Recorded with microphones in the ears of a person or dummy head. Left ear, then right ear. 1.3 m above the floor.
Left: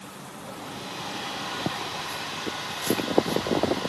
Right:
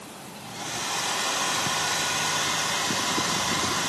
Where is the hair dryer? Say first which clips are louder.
Right 7 dB; 65° right (ahead or behind), 3 m.